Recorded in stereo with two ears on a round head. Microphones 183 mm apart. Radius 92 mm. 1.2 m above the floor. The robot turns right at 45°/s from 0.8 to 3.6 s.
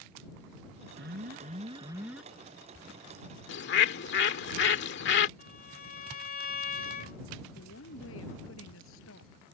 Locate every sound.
1.0 s an alarm: 60° right; by 2.3 s straight ahead
3.5 s a bird: 65° left (ahead or behind); by 5.3 s 60° left (ahead or behind)
5.4 s a violin: 45° left (ahead or behind)
7.5 s a woman speaking: 75° left (ahead or behind)